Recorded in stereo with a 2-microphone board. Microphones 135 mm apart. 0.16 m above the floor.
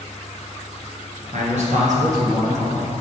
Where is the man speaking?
60° right (ahead or behind), 2 m.